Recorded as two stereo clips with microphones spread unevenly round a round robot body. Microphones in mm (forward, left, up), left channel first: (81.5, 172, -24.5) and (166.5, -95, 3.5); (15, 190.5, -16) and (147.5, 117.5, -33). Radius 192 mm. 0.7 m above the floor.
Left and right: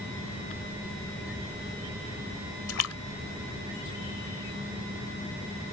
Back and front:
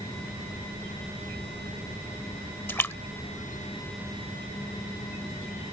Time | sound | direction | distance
2.7 | a splash | 75° left | ?